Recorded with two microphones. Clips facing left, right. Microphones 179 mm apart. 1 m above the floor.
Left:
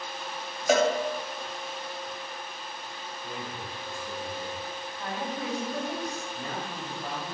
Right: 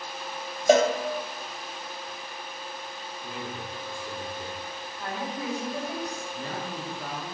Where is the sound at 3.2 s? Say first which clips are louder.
Right 2 dB; 65° right (ahead or behind), 3.5 m.